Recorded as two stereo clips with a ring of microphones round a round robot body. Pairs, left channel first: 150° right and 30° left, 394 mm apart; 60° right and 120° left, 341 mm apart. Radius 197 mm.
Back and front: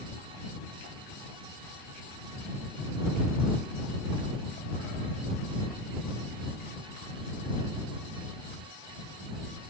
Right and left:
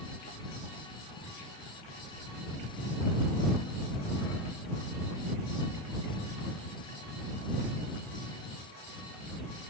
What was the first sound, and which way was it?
Only background noise.